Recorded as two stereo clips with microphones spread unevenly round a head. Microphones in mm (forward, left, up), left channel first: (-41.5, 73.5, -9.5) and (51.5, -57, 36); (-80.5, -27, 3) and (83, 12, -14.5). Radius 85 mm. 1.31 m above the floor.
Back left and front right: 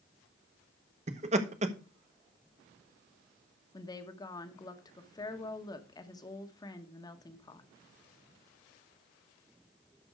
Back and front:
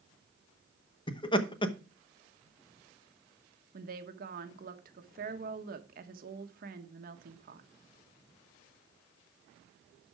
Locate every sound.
1.1 s laughter: 105° right, 1.0 m
3.7 s a woman speaking: 55° left, 1.2 m